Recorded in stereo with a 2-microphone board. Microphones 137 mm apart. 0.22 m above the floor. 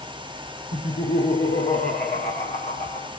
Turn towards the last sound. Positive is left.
turn(degrees=75)  # may be behind; listen again after turning